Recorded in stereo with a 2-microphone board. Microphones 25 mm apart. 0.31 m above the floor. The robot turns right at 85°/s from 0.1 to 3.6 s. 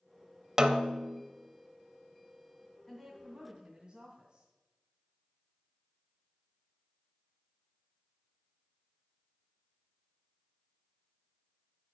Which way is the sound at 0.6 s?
140° right.